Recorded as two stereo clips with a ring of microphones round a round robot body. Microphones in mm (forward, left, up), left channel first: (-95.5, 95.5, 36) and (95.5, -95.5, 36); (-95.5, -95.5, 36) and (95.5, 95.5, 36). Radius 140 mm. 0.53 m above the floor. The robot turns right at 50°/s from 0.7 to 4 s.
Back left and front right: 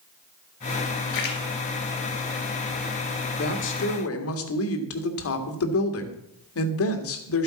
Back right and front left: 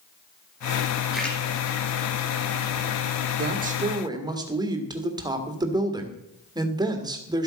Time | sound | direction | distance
1.1 | a splash | 130° left | 3 m
3.4 | a woman speaking | 85° left | 1.8 m